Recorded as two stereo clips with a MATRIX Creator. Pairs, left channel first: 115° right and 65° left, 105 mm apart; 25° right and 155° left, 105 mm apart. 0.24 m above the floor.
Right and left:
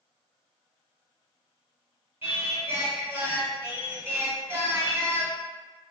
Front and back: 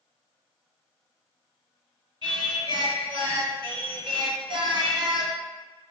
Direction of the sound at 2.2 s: 135° left.